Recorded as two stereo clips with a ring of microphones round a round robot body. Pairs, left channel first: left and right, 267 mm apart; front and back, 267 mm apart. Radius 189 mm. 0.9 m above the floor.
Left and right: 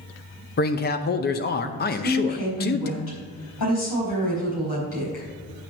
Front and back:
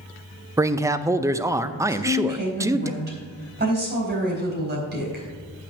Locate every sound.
0.6 s a man speaking: 105° left, 0.5 m
1.9 s a woman speaking: 130° left, 4 m